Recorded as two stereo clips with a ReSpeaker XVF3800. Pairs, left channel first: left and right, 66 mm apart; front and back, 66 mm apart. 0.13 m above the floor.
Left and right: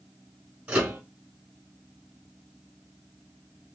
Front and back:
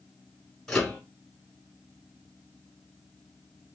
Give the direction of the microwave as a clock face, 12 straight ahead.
3 o'clock.